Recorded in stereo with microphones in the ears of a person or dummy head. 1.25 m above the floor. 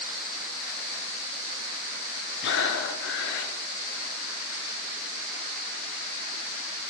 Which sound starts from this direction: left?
Breathing, at 2.4 s.